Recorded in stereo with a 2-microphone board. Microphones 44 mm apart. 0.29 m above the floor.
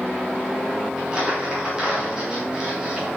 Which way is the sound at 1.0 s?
20° right (ahead or behind).